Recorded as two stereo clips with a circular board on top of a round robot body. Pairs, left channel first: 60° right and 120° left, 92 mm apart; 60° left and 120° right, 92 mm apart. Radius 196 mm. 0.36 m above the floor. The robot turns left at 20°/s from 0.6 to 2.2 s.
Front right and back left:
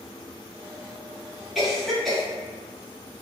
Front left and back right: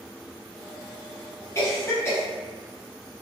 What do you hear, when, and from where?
1.6 s a cough: 35° left, 1.6 m; by 2.2 s 20° left, 1.6 m